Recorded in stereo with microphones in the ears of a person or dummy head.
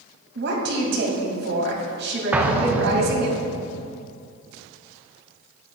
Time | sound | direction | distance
0.3 | a woman speaking | 70° right (ahead or behind) | 2.5 m
2.3 | an explosion | 15° right (ahead or behind) | 0.7 m